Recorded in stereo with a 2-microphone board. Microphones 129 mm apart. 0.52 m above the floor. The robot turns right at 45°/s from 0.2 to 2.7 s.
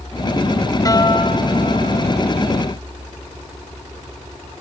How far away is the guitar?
About 2 m.